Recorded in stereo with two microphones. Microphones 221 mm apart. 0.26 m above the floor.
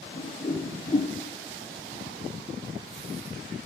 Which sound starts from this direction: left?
A whoosh, at 0.1 s.